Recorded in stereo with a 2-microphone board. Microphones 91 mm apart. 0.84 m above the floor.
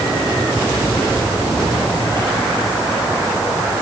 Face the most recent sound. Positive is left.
No sound to turn to.